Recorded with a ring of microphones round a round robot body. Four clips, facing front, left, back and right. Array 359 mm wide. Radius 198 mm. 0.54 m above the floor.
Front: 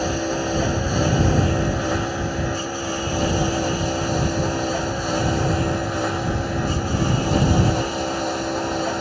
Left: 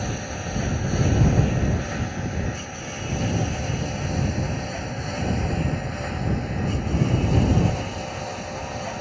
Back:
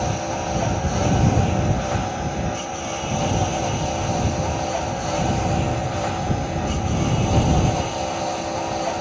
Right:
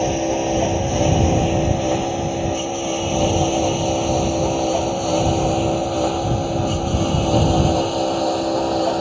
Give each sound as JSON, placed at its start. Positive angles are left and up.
{"t": 0.0, "sound": "a lawn mower", "azimuth_deg": -60}